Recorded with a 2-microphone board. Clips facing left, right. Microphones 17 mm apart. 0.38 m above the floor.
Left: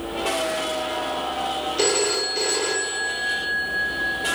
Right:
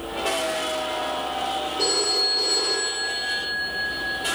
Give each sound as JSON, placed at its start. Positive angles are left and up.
{"t": 1.8, "sound": "a phone ringing", "side_deg": 70, "distance_m": 3.5}